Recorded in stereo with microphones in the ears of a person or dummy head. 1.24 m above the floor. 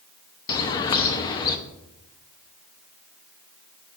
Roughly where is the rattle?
No rattle in this recording.